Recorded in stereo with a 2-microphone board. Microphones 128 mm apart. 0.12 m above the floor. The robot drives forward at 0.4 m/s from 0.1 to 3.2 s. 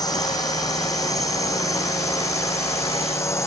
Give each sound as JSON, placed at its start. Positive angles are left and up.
{"t": 0.0, "sound": "a drone", "side_deg": 30}